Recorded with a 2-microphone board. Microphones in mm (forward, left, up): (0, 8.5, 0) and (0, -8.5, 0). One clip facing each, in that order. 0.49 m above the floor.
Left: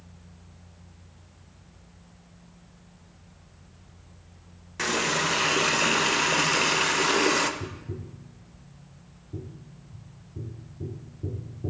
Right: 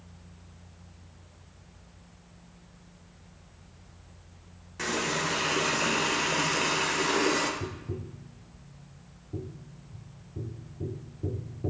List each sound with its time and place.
4.8 s a running tap: 25° left (ahead or behind), 0.9 m
7.6 s tapping: 55° right (ahead or behind), 0.7 m